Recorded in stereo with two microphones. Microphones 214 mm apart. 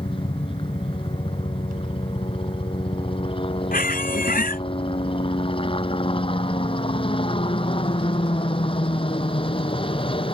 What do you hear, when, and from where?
0.0 s a helicopter: 25° left (ahead or behind)
3.7 s a squeak: 45° left (ahead or behind)